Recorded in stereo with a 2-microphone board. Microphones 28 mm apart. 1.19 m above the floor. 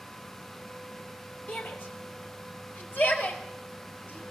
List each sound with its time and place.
1.5 s a shout: 75° left (ahead or behind), 3.5 m